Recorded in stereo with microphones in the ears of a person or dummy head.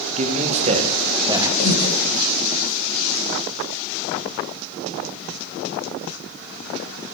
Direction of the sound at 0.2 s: 35° right (ahead or behind).